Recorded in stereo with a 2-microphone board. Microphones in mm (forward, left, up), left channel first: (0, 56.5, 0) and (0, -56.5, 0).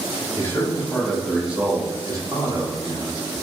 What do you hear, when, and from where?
0.4 s a man speaking: 25° left (ahead or behind), 1.2 m; by 3.2 s 50° right (ahead or behind), 1.8 m